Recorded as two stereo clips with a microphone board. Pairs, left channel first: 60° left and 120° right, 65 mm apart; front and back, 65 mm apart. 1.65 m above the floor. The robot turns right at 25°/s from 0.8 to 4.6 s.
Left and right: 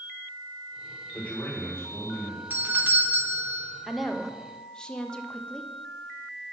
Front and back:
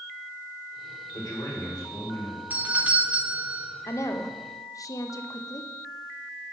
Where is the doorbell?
145° right, 0.5 m; by 3.7 s 115° right, 0.5 m.